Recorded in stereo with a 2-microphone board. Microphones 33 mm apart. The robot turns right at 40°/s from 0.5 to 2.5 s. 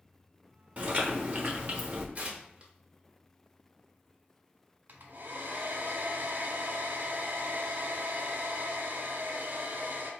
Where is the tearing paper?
40° right (ahead or behind), 0.9 m; by 2.7 s 30° right (ahead or behind), 0.9 m.